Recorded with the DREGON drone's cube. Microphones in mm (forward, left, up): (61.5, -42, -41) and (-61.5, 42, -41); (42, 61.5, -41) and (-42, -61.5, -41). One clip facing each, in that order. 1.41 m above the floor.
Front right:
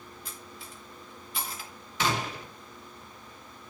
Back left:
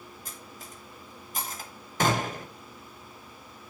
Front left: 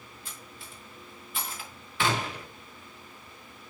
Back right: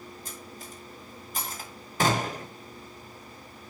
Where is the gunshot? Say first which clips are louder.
Back left 4 dB, back right 3 dB; 170° right, 0.8 m.